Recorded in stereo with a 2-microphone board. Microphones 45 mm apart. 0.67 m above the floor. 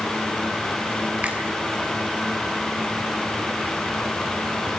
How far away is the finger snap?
About 6.5 m.